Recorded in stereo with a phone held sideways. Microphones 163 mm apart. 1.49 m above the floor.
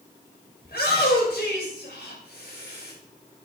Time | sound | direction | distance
0.6 | a shout | 90° left | 5.5 m